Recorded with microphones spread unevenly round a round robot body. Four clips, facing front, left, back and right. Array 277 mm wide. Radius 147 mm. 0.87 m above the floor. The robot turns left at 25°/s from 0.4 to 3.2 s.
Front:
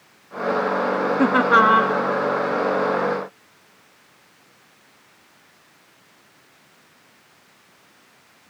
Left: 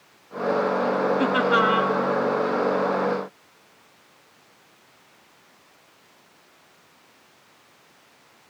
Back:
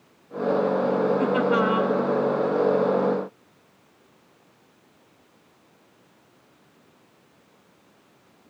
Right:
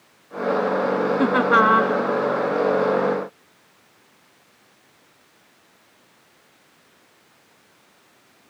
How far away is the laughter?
About 1.3 m.